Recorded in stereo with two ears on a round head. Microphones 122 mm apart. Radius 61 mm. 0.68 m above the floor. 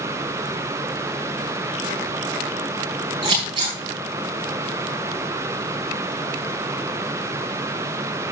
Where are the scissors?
40° right (ahead or behind), 6 m.